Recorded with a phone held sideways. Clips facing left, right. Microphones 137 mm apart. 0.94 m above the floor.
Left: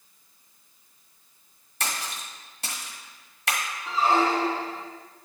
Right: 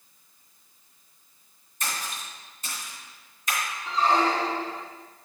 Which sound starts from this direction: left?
A splash, at 1.8 s.